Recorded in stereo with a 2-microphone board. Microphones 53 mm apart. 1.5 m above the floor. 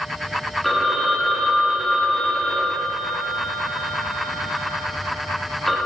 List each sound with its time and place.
0.6 s a phone ringing: 5° left (ahead or behind), 1.9 m